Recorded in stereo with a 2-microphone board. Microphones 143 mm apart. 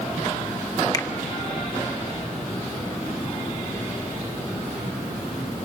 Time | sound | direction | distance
0.9 | a finger snap | 25° left (ahead or behind) | 0.9 m